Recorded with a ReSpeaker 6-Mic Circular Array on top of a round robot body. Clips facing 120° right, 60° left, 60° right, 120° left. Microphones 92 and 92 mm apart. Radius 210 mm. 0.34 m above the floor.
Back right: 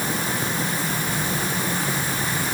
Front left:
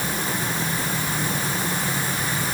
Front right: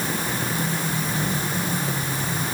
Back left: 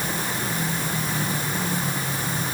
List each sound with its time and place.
Only background noise.